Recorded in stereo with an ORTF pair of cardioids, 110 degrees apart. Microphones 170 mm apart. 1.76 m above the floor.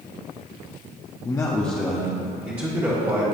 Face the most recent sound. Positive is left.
turn(degrees=-20)